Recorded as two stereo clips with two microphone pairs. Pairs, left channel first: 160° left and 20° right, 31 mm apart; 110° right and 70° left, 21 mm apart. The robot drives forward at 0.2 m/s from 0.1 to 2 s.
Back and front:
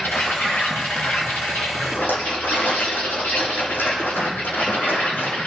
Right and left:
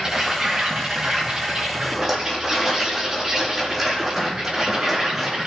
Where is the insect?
135° left, 6 m.